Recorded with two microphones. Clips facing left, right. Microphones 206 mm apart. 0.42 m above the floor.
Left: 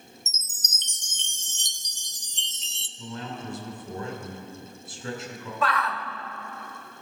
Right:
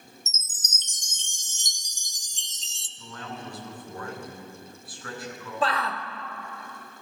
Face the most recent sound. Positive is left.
turn(degrees=-30)  # may be behind; listen again after turning